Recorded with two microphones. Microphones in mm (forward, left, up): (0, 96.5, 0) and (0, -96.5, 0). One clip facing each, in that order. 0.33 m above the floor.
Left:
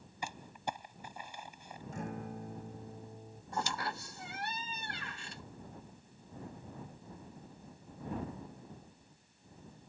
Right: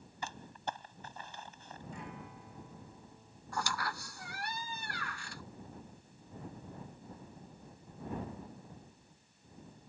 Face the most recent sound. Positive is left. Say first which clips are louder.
# left 1 dB
turn(degrees=25)  # may be behind; listen again after turning